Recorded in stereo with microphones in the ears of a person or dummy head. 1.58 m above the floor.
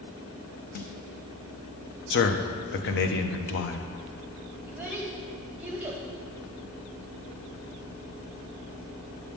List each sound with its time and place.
0.8 s a snare drum: 50° left (ahead or behind), 0.6 m
2.1 s a man speaking: 60° left (ahead or behind), 0.7 m
4.7 s a child speaking: 10° right (ahead or behind), 1.6 m